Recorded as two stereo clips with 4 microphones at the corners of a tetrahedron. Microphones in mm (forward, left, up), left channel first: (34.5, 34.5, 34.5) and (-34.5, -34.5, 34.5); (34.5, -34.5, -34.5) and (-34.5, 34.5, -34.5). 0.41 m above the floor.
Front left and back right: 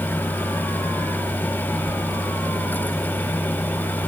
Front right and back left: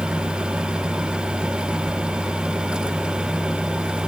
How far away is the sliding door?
About 1.7 m.